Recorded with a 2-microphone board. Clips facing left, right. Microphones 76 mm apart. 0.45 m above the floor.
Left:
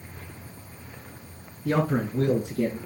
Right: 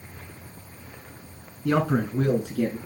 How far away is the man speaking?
About 5 m.